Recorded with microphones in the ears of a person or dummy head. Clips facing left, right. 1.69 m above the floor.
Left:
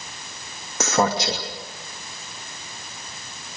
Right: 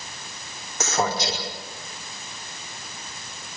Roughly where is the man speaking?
Left.